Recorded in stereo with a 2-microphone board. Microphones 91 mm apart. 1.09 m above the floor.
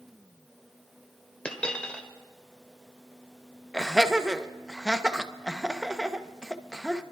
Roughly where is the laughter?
Centre.